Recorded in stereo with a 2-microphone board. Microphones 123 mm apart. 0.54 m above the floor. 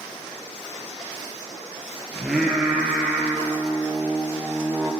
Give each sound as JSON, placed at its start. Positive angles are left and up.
{"t": 2.1, "sound": "singing", "side_deg": 0, "distance_m": 1.6}